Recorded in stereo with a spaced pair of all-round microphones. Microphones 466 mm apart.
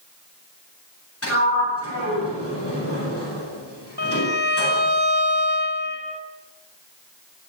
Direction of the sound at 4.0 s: 55° right (ahead or behind).